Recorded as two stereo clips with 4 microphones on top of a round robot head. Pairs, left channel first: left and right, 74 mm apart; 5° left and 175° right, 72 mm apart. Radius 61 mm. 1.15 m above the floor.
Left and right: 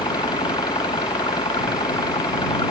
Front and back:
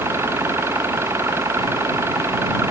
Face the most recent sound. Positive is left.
turn(degrees=135)